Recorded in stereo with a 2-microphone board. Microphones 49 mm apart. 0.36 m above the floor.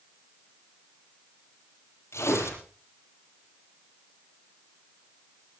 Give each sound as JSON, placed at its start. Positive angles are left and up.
{"t": 2.1, "sound": "tearing paper", "side_deg": 60, "distance_m": 8.0}